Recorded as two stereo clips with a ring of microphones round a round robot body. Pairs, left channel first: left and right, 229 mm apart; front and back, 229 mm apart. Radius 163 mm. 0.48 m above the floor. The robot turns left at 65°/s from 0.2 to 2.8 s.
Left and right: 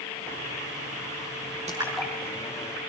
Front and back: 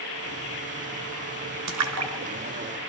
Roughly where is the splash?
Behind.